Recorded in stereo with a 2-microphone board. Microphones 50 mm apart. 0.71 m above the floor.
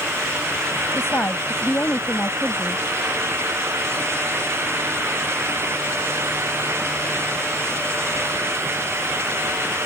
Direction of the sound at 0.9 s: 60° left (ahead or behind).